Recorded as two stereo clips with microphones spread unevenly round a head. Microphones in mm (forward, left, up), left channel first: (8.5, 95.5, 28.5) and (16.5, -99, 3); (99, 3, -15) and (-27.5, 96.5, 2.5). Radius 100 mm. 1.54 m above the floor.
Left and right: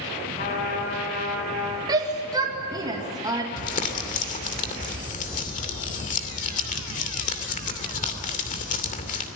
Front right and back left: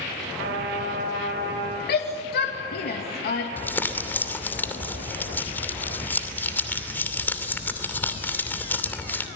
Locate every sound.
0.4 s a trumpet: 145° left, 5.5 m
1.9 s a shout: 15° right, 2 m
3.6 s crumpling: 45° left, 2.5 m